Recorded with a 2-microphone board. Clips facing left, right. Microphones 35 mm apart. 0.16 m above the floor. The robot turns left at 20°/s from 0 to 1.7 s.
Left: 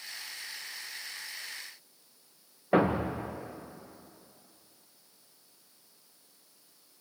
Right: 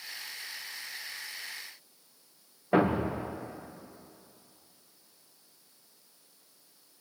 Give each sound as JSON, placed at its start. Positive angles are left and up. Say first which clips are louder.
{"t": 2.7, "sound": "a thud", "louder": "even", "side_deg": 5, "distance_m": 3.0}